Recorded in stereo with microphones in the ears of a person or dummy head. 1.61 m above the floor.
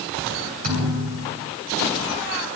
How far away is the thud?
About 3 m.